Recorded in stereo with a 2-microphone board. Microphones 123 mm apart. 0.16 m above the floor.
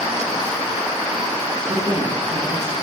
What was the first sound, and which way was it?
A woman speaking, 25° right (ahead or behind).